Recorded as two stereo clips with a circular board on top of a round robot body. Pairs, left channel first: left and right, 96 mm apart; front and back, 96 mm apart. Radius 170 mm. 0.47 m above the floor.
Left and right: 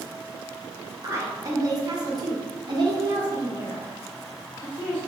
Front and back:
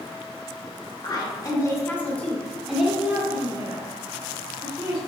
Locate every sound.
1.0 s a woman speaking: 35° right, 1.6 m; by 5.0 s 145° right, 2 m